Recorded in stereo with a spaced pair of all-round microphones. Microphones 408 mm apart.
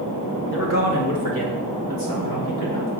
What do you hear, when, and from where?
0.5 s a man speaking: 30° left (ahead or behind), 1.8 m; by 2.9 s 85° left, 4.5 m